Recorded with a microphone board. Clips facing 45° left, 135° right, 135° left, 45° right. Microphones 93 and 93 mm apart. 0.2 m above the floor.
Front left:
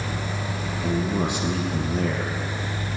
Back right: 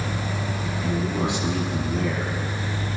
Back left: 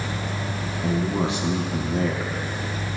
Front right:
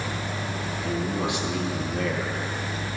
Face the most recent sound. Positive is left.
turn(degrees=75)